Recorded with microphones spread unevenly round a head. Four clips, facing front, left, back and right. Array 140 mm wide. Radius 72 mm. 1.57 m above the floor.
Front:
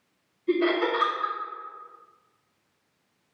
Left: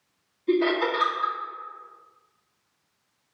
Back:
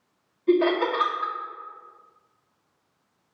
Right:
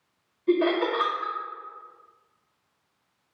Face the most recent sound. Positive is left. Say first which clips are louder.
# even, back 3 dB
turn(degrees=-150)